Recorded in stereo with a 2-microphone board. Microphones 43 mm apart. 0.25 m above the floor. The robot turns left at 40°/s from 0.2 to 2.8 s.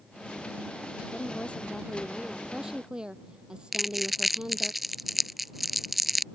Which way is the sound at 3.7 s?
Centre (ahead or behind).